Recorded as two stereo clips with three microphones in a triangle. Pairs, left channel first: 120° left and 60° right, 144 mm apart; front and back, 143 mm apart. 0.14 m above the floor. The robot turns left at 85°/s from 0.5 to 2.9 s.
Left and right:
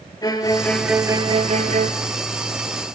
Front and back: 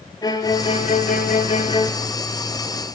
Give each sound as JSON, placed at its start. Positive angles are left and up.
{"t": 0.2, "sound": "a violin", "azimuth_deg": 60, "distance_m": 0.7}